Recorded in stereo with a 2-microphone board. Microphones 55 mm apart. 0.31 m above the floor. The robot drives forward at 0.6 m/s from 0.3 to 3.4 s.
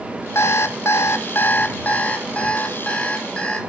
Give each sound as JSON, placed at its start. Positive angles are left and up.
{"t": 0.3, "sound": "an alarm clock", "side_deg": 55, "distance_m": 0.6}